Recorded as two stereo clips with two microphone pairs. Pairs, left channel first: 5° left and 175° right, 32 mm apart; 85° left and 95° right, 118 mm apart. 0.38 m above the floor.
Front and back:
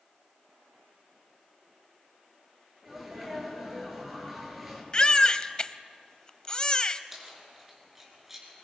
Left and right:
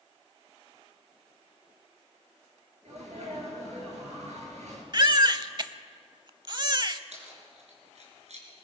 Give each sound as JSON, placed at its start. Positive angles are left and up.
{"t": 2.9, "sound": "a sneeze", "azimuth_deg": -90, "distance_m": 7.0}
{"t": 4.9, "sound": "a baby crying", "azimuth_deg": -50, "distance_m": 0.7}
{"t": 7.1, "sound": "keys jangling", "azimuth_deg": -95, "distance_m": 4.0}